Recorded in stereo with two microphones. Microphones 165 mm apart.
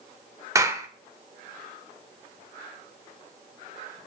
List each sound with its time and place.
0.6 s a clap: 20° right (ahead or behind), 1.0 m